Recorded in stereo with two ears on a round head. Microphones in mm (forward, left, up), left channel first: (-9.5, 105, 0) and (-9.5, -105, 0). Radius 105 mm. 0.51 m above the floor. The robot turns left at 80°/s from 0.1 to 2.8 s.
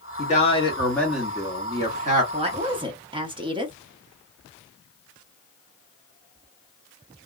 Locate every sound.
0.2 s a man speaking: 75° left, 1.4 m; by 2.2 s 90° right, 1.4 m
2.3 s a woman speaking: 25° right (ahead or behind), 0.8 m; by 3.8 s 20° right (ahead or behind), 0.8 m